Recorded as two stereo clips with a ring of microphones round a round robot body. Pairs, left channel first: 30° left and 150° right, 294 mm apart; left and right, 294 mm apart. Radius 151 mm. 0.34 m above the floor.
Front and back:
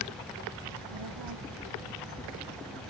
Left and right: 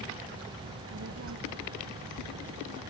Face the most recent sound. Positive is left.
turn(degrees=-140)